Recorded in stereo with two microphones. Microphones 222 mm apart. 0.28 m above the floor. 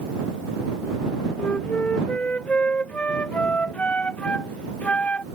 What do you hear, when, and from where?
1.4 s a flute: 5° left (ahead or behind)